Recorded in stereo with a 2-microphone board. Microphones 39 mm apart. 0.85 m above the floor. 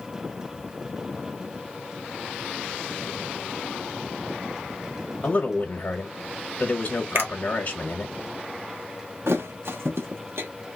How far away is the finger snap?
About 1.0 m.